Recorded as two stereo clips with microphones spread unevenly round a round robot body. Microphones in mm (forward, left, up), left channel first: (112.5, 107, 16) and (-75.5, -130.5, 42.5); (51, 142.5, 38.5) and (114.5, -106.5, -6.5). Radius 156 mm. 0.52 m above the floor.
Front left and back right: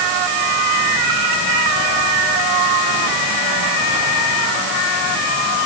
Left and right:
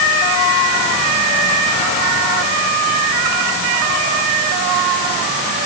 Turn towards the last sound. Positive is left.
No sound to turn to.